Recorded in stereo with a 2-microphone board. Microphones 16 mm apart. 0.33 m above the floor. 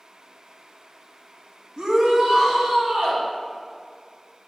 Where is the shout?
45° right (ahead or behind), 2 m; by 3.2 s 65° right (ahead or behind), 4 m.